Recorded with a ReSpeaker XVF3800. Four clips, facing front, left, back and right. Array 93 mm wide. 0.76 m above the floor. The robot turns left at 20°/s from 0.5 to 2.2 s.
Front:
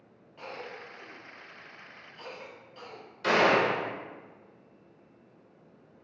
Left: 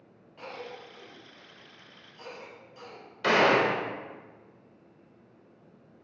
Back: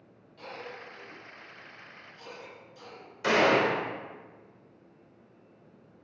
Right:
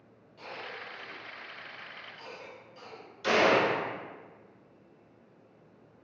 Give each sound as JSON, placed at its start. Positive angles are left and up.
{"t": 0.4, "sound": "a cough", "azimuth_deg": 40, "distance_m": 0.6}
{"t": 3.2, "sound": "a gunshot", "azimuth_deg": 105, "distance_m": 0.6}